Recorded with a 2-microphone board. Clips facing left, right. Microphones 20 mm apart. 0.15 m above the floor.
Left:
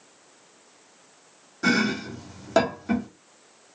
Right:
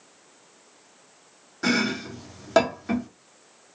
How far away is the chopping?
About 1.6 m.